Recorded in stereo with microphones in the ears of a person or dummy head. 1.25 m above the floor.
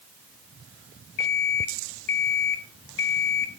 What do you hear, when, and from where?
1.2 s an alarm clock: 65° left (ahead or behind), 1.3 m